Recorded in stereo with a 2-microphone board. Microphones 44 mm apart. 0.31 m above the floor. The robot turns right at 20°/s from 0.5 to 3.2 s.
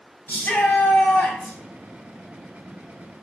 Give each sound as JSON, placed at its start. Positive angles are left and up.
{"t": 0.3, "sound": "a shout", "side_deg": 40, "distance_m": 2.0}